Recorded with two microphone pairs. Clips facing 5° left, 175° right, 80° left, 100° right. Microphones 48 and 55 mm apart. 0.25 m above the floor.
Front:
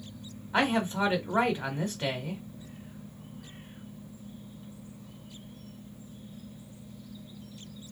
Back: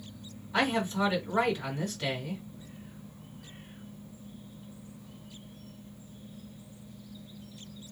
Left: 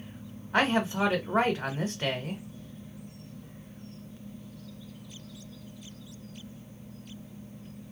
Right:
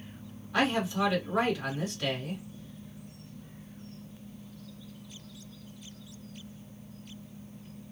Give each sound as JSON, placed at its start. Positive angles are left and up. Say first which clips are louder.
{"t": 0.5, "sound": "a man speaking", "louder": "front 1 dB, left 2 dB", "azimuth_deg": 50, "distance_m": 1.3}